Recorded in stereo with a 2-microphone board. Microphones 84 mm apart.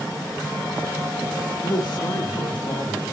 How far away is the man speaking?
About 2 m.